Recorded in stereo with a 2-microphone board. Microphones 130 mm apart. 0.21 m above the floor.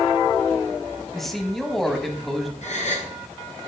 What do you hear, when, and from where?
1.1 s a man speaking: centre (ahead or behind), 1.1 m
2.6 s a gasp: 60° left (ahead or behind), 1.5 m